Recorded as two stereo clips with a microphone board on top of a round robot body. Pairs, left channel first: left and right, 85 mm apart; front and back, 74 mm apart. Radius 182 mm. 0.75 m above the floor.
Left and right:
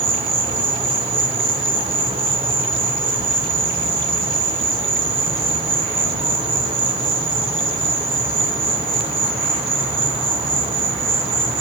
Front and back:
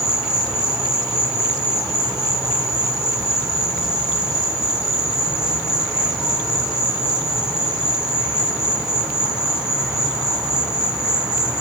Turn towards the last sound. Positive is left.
turn(degrees=-100)